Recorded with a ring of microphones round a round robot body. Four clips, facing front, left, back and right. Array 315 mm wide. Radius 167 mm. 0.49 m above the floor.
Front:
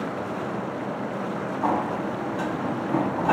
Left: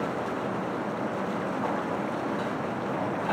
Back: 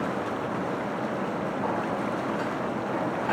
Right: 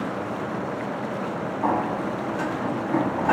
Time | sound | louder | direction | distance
1.6 | a sliding door | right 5 dB, front 6 dB | 45° right | 0.5 m